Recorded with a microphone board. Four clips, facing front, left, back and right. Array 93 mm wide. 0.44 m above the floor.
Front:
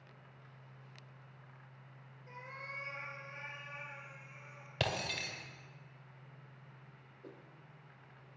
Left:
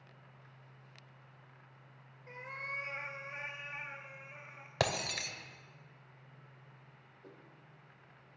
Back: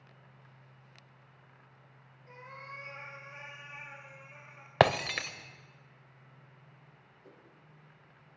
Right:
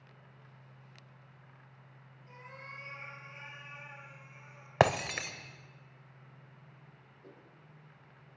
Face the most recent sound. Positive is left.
turn(degrees=0)